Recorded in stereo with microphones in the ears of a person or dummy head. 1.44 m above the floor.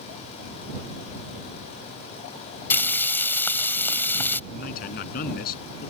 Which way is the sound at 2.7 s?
15° left (ahead or behind).